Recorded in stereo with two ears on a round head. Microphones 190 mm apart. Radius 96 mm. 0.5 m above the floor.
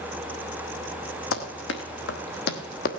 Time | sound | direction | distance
1.3 | running footsteps | 65° left (ahead or behind) | 1.7 m